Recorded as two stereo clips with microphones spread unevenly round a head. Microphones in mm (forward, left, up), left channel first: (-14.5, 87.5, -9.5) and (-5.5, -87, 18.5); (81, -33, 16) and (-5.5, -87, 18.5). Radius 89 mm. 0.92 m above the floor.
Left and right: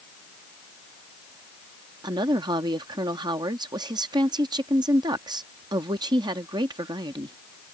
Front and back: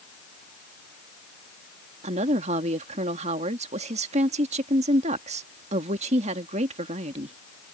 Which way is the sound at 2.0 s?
155° right.